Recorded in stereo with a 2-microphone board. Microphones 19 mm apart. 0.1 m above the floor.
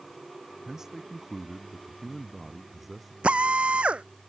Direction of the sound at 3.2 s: 80° right.